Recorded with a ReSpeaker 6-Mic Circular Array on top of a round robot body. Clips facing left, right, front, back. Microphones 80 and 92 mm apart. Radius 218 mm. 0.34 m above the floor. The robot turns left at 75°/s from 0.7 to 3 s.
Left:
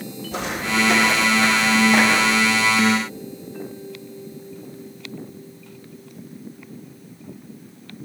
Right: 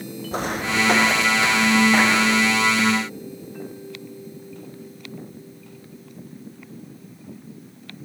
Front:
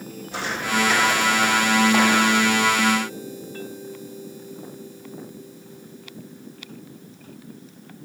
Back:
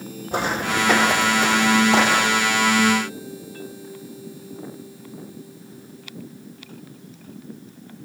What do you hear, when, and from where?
0.3 s footsteps: 135° right, 1.9 m; by 2.5 s 140° left, 2 m